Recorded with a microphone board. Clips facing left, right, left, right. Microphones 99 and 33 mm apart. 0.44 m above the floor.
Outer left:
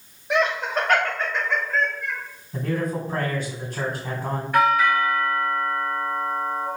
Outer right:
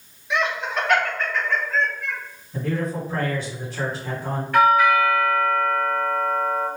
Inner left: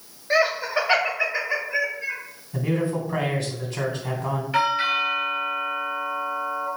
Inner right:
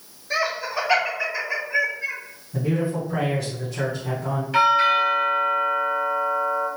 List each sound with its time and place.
0.3 s laughter: 45° left (ahead or behind), 1.7 m; by 2.2 s centre (ahead or behind), 1.4 m
2.5 s a man speaking: 45° left (ahead or behind), 1.8 m
4.5 s a doorbell: 10° left (ahead or behind), 1.9 m